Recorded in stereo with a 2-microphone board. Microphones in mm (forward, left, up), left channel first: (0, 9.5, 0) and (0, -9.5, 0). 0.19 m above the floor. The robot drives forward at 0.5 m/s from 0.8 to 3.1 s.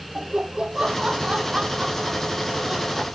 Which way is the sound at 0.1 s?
45° right (ahead or behind).